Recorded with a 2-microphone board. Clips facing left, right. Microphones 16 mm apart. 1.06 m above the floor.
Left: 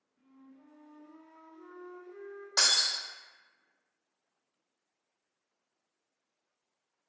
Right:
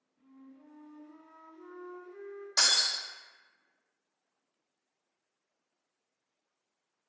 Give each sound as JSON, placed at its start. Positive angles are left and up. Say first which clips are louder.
{"t": 0.2, "sound": "a flute", "louder": "right 2 dB", "side_deg": 25, "distance_m": 1.3}
{"t": 2.6, "sound": "breaking glass", "louder": "even", "side_deg": 40, "distance_m": 1.7}